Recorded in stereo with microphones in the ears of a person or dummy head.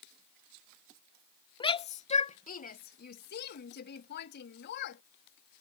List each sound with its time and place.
1.6 s a shout: 25° left (ahead or behind); by 5.0 s 60° left (ahead or behind)